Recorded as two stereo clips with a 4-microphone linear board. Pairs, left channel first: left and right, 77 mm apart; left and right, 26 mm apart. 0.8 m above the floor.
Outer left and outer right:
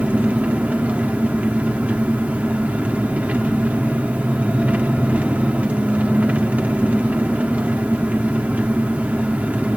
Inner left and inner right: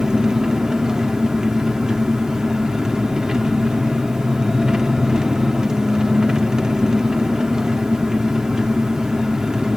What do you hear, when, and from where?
0.0 s an engine running: 20° right (ahead or behind), 1.6 m